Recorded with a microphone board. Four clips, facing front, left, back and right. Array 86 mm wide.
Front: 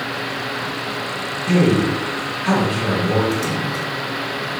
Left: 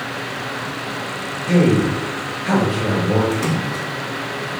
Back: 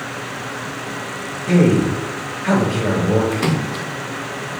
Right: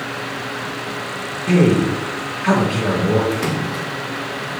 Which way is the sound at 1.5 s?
80° right.